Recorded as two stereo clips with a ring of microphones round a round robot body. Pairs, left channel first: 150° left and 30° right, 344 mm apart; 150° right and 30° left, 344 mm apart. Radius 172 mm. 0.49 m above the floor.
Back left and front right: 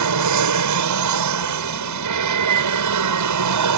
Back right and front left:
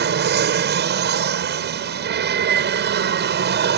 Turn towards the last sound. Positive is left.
turn(degrees=-20)